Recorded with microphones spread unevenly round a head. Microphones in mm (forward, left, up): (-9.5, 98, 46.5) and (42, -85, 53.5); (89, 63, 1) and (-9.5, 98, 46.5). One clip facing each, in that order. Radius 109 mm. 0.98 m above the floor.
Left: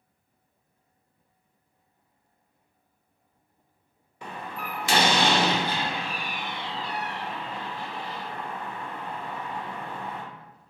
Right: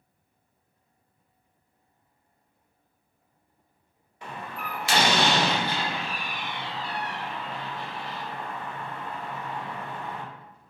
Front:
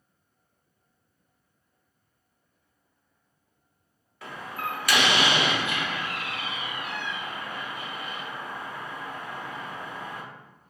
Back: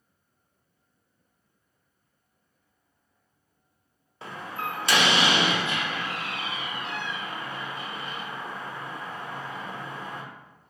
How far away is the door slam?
About 0.7 m.